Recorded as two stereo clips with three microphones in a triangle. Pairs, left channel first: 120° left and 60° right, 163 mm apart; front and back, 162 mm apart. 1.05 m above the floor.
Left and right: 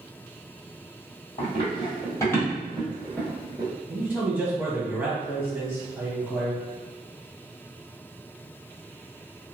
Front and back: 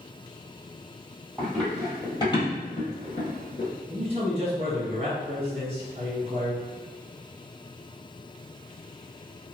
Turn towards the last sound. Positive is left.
turn(degrees=-145)